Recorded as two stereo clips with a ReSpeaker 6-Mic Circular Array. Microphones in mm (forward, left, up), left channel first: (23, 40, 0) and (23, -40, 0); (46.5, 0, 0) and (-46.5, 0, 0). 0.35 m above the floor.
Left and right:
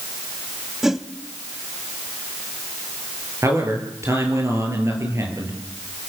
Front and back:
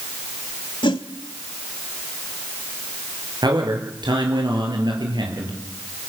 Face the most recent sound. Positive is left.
turn(degrees=-145)